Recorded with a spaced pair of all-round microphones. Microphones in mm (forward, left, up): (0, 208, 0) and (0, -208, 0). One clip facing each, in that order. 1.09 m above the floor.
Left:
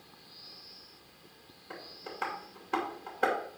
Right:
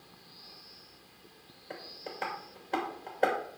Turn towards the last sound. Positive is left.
turn(degrees=20)  # may be behind; listen again after turning